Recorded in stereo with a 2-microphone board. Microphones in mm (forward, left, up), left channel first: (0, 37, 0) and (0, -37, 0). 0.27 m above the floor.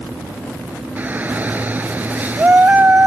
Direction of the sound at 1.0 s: 25° right (ahead or behind).